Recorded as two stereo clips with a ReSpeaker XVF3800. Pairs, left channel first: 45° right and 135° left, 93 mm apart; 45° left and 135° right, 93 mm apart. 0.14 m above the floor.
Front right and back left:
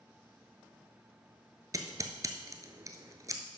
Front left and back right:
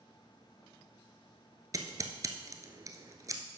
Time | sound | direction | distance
1.7 | scissors | straight behind | 0.9 m